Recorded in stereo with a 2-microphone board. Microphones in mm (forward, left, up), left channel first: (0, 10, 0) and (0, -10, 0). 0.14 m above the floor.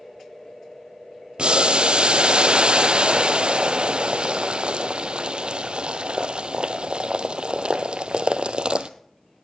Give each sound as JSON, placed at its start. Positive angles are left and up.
{"t": 1.4, "sound": "boiling", "side_deg": -65, "distance_m": 0.7}